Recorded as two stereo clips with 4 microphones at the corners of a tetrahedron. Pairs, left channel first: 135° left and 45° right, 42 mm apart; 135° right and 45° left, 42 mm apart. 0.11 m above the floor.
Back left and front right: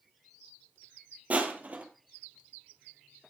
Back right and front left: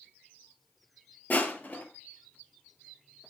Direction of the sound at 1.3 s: 95° right.